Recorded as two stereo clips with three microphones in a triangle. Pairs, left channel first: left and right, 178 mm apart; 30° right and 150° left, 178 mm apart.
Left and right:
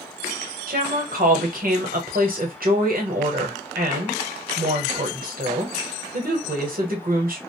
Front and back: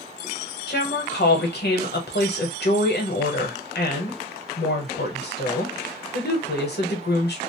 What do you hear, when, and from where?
0.7 s a woman speaking: 55° right, 0.9 m